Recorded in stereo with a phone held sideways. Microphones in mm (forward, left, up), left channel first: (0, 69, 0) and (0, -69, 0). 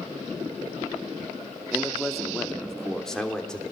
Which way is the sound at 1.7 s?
Centre (ahead or behind).